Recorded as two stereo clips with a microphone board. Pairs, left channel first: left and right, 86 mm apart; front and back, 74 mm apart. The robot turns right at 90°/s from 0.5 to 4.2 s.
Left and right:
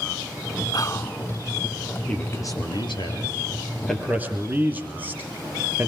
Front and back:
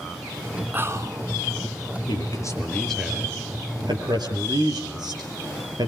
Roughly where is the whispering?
Behind left.